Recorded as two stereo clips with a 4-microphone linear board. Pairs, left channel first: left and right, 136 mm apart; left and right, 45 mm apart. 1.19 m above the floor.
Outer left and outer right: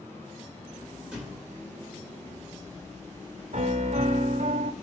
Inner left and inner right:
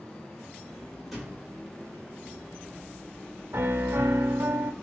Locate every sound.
1.1 s a thud: 5° right (ahead or behind), 2 m
3.5 s a piano: 60° right (ahead or behind), 0.6 m